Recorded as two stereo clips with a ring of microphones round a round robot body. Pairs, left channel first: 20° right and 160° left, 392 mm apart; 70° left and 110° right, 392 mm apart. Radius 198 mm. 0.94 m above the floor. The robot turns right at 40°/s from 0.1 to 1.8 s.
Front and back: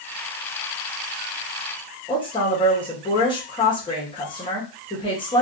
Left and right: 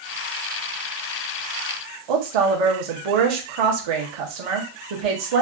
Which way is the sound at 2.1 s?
100° right.